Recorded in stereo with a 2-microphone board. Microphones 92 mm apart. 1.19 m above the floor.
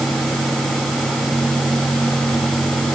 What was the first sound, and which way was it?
Only background noise.